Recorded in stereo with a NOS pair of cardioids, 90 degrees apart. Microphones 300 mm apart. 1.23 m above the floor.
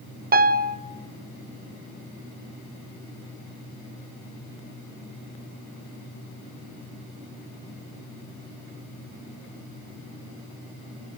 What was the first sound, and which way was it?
A piano, 30° right.